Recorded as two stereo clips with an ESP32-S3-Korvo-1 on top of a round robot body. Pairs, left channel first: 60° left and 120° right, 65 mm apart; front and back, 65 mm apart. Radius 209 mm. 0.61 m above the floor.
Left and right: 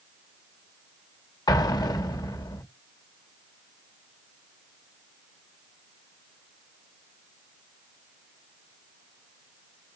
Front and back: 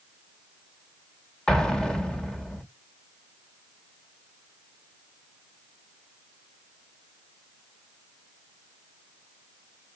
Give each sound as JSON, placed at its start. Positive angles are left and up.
{"t": 1.5, "sound": "an explosion", "azimuth_deg": 80, "distance_m": 1.1}